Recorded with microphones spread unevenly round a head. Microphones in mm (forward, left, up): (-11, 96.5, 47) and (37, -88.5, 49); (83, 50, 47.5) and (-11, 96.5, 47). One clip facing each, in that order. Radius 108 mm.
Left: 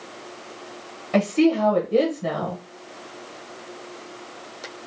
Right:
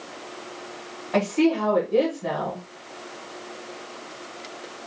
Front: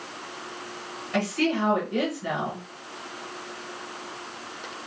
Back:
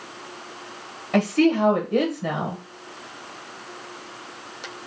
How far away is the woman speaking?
About 1.2 m.